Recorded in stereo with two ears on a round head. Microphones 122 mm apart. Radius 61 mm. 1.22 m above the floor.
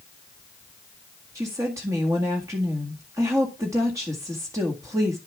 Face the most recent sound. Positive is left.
turn(degrees=-20)  # may be behind; listen again after turning